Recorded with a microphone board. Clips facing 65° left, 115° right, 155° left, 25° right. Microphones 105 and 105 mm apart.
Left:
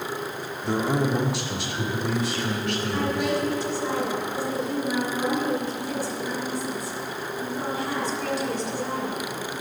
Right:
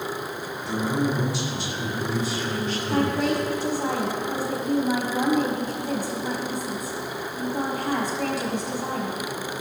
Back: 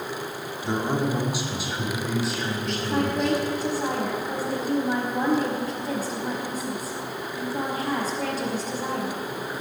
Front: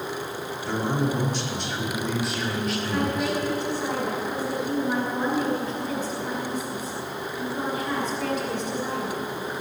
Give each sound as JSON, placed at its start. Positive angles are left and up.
{"t": 0.6, "sound": "a man speaking", "azimuth_deg": 95, "distance_m": 1.9}
{"t": 2.9, "sound": "a woman speaking", "azimuth_deg": -150, "distance_m": 5.0}